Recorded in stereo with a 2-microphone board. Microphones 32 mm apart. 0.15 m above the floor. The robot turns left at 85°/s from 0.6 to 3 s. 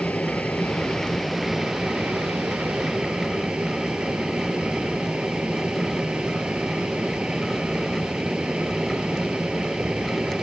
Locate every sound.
0.0 s an aircraft: 60° left; by 10.4 s 145° right